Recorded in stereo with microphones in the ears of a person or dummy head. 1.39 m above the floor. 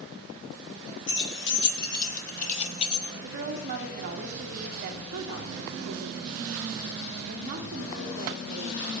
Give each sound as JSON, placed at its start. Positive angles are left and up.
{"t": 1.1, "sound": "keys jangling", "side_deg": 70, "distance_m": 1.8}
{"t": 3.2, "sound": "a woman speaking", "side_deg": -50, "distance_m": 2.5}